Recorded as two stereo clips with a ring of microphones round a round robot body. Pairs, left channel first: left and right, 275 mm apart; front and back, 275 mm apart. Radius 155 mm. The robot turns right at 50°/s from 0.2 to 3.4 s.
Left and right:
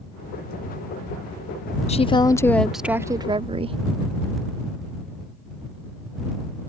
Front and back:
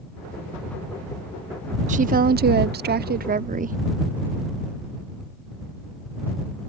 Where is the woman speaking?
140° left; by 3.8 s 145° right.